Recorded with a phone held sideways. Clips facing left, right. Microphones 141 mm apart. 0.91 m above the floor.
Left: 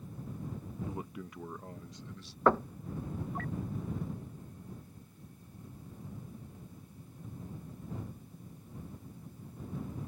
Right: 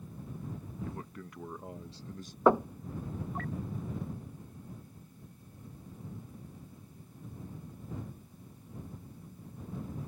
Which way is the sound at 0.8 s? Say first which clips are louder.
Left 2 dB; 20° left (ahead or behind).